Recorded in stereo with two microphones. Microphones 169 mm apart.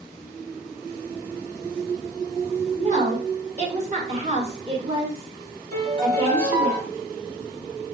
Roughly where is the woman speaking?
Right.